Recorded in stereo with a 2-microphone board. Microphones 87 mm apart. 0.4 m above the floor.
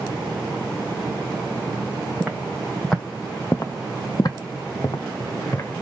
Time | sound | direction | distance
2.2 | footsteps | 5° right (ahead or behind) | 0.9 m